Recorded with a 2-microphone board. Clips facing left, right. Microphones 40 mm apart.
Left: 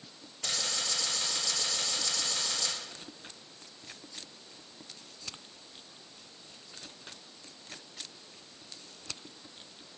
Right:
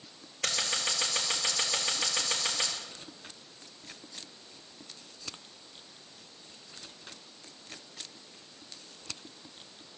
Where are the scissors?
70° right (ahead or behind), 5 m.